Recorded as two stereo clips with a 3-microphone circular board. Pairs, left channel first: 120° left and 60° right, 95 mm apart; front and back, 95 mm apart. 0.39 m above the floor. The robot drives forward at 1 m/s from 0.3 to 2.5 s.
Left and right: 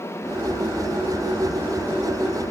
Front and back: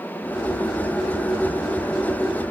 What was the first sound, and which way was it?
Only background noise.